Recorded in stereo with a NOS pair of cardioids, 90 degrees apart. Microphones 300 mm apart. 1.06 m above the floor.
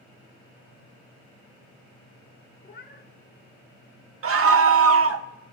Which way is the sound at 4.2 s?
50° right.